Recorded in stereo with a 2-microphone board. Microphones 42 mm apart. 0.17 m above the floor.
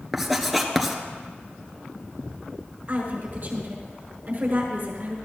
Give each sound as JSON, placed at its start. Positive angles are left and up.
{"t": 0.1, "sound": "writing", "side_deg": -5, "distance_m": 1.3}
{"t": 2.9, "sound": "a woman speaking", "side_deg": -45, "distance_m": 5.5}